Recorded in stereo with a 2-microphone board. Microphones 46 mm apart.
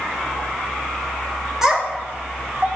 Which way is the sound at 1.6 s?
10° right (ahead or behind).